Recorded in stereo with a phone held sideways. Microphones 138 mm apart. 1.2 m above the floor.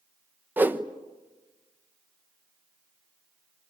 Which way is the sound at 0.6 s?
15° right (ahead or behind).